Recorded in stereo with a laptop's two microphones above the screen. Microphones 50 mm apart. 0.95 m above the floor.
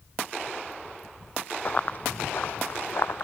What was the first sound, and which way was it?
Running footsteps, 35° left (ahead or behind).